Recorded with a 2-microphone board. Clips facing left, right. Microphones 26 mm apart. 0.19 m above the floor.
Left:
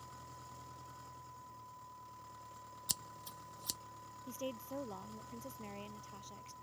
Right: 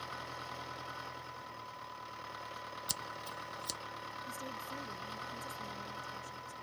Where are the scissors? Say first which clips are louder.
Right 1 dB; 5° right (ahead or behind).